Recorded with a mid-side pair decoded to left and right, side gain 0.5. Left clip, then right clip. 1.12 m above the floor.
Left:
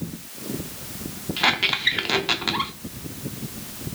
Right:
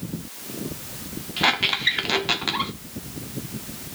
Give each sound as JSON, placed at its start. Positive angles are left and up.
{"t": 1.4, "sound": "a squeak", "azimuth_deg": 0, "distance_m": 2.0}